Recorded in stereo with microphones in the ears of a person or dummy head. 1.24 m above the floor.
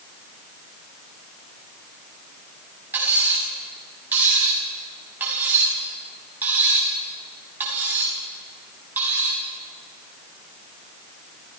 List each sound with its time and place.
2.9 s cutlery clinking: 10° right (ahead or behind), 6.5 m